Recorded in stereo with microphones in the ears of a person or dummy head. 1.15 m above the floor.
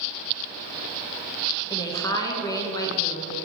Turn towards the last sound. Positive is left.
turn(degrees=20)  # may be behind; listen again after turning